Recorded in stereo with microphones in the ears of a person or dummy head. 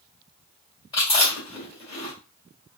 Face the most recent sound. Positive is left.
turn(degrees=25)  # may be behind; listen again after turning